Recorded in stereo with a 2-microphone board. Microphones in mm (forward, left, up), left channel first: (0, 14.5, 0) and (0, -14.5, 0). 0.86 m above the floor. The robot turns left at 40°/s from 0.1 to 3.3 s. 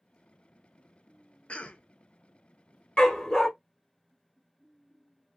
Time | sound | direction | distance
1.5 | a cough | 45° left (ahead or behind) | 0.5 m
3.0 | a dog barking | 35° left (ahead or behind) | 0.7 m